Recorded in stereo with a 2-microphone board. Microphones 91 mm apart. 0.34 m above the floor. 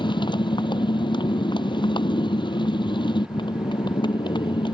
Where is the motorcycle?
60° left (ahead or behind).